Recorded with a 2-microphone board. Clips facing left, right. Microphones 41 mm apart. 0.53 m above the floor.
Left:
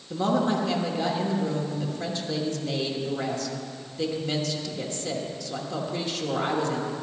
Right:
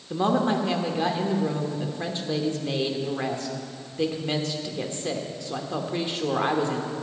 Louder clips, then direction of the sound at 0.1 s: Right 1 dB; 25° right (ahead or behind).